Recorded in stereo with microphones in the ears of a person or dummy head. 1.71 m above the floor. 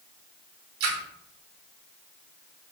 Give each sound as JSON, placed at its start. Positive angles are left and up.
{"t": 0.8, "sound": "a splash", "side_deg": -70, "distance_m": 1.3}